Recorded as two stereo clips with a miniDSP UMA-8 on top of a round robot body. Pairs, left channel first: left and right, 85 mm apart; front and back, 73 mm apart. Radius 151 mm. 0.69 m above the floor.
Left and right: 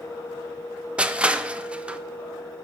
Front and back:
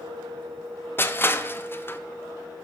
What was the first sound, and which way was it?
Crushing, 25° right.